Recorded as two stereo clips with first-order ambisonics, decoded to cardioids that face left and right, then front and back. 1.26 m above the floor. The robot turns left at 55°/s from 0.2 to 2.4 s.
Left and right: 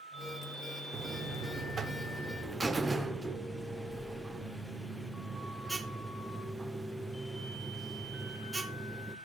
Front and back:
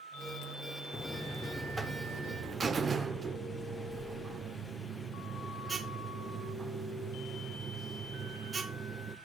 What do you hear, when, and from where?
0.9 s a buzzer: 70° right, 0.6 m; by 9.2 s 150° right, 0.6 m